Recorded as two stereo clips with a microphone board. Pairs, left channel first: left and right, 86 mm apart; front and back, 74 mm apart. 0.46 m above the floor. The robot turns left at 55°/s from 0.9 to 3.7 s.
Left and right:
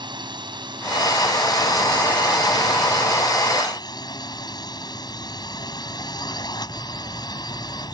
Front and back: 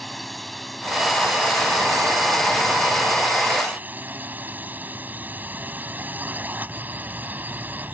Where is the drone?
85° right; by 7.9 s 120° left.